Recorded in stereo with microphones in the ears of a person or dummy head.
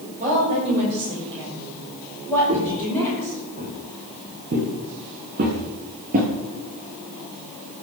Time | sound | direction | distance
0.2 | a woman speaking | 35° right (ahead or behind) | 6 m
2.5 | footsteps | 30° right (ahead or behind) | 2.5 m